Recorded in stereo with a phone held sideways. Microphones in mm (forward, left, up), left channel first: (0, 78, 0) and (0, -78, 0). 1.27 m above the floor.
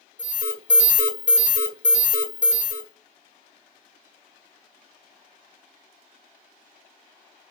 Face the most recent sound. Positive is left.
turn(degrees=-55)  # may be behind; listen again after turning